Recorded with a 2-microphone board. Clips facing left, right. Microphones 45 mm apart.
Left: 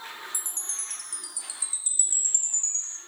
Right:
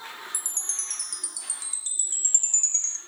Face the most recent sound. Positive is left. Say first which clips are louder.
# right 2 dB
turn(degrees=-60)  # may be behind; listen again after turning